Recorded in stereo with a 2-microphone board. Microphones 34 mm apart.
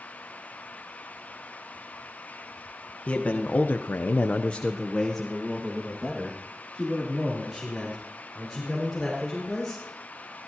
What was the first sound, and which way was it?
A man speaking, 45° left (ahead or behind).